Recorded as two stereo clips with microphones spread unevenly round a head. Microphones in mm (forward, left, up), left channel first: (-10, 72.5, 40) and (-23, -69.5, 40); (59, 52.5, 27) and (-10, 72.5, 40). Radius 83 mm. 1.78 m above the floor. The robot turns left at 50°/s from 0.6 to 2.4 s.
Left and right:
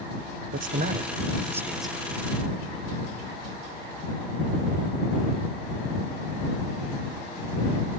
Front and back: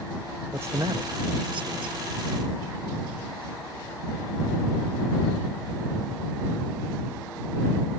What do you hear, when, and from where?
0.5 s a man speaking: 120° right; by 1.9 s 170° left